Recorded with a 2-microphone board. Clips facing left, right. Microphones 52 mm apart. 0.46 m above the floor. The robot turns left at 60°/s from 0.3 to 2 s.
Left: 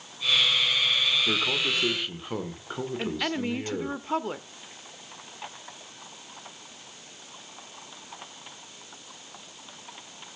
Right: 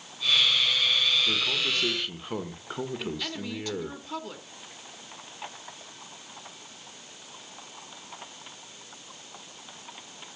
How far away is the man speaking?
About 1.5 m.